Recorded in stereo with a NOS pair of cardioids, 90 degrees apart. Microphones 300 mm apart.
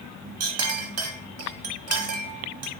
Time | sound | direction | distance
0.4 | a clink | 50° right | 0.9 m